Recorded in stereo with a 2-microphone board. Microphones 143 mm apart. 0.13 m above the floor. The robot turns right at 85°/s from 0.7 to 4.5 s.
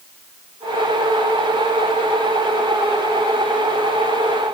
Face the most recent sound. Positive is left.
No sound to turn to.